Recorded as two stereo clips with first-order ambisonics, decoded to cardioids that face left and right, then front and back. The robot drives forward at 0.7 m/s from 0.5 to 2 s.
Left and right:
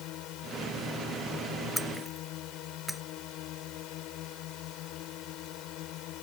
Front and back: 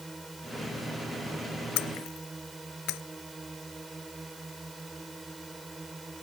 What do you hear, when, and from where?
0.0 s a drone: 100° left; by 6.2 s 105° left
1.8 s breaking glass: straight ahead